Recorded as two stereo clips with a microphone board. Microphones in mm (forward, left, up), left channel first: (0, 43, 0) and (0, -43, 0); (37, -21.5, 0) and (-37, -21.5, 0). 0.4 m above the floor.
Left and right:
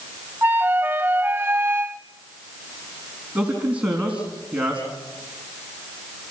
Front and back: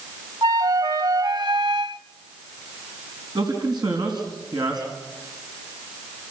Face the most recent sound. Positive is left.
turn(degrees=-165)